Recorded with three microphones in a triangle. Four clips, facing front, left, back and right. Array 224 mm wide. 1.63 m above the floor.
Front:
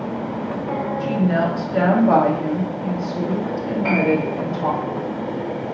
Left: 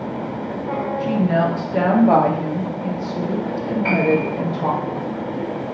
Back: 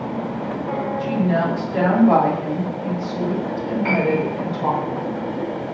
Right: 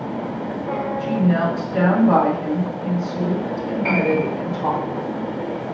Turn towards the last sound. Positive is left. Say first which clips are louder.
# left 1 dB, front 1 dB
turn(degrees=30)